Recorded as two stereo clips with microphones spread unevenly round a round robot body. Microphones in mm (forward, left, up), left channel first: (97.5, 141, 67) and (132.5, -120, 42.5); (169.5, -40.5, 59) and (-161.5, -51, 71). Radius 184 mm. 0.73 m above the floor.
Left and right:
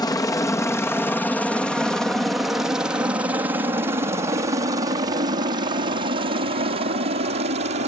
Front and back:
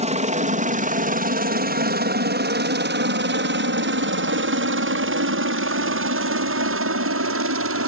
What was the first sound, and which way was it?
A helicopter, 160° left.